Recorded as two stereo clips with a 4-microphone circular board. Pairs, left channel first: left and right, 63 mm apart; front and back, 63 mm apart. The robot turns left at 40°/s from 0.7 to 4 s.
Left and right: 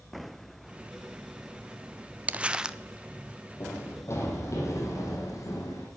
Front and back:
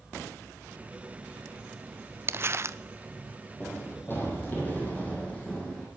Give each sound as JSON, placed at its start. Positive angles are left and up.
{"t": 2.3, "sound": "crumpling", "azimuth_deg": -150, "distance_m": 0.5}
{"t": 3.6, "sound": "running footsteps", "azimuth_deg": 60, "distance_m": 4.0}